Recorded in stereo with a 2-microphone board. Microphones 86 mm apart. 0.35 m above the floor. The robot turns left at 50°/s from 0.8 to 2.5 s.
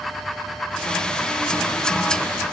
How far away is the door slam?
No door slam in this recording.